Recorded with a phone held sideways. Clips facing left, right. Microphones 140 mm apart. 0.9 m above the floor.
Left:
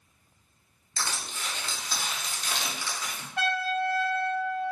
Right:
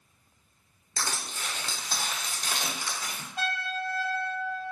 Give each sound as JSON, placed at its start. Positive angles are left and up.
{"t": 1.0, "sound": "crushing", "side_deg": -45, "distance_m": 0.8}
{"t": 3.4, "sound": "a trumpet", "side_deg": 60, "distance_m": 1.3}